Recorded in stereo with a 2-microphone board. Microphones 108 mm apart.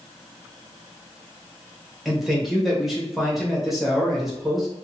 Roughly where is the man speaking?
Centre.